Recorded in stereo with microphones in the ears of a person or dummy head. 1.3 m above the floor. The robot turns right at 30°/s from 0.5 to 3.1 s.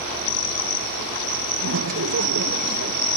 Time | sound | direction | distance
1.6 | laughter | 95° right | ?